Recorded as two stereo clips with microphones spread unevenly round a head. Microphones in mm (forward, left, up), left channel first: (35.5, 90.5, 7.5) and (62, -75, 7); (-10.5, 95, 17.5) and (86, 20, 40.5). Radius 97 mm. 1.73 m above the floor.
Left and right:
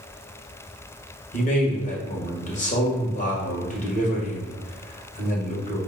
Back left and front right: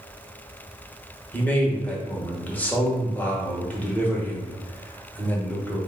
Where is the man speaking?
60° left, 1.3 m.